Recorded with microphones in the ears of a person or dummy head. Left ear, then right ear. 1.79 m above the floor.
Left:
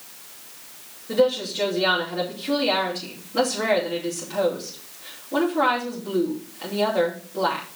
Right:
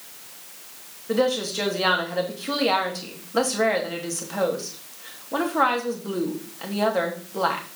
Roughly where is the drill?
No drill in this recording.